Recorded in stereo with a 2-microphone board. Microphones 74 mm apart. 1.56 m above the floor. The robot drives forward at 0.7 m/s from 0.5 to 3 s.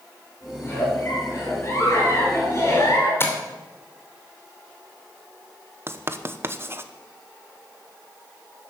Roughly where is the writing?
Right.